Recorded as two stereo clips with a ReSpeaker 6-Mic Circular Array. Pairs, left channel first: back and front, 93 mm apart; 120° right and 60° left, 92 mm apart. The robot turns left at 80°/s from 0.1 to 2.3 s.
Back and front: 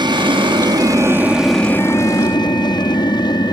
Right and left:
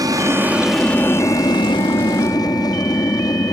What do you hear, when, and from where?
0.0 s an aircraft: 20° left; by 3.5 s 155° right